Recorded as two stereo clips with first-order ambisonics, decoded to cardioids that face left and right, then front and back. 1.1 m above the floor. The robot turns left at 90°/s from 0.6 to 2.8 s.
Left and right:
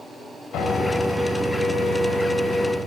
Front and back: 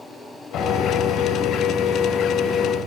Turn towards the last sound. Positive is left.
turn(degrees=-150)